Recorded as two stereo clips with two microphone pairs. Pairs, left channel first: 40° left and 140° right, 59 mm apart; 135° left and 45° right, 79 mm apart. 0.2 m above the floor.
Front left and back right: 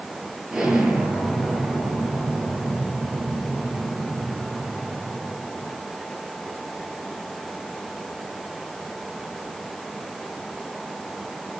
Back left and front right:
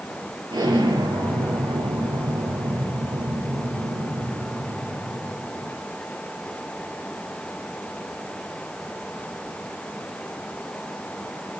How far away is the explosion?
About 4.5 m.